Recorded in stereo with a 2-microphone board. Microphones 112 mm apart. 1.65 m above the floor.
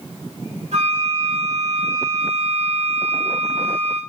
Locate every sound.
0.7 s a flute: 75° right (ahead or behind), 3.5 m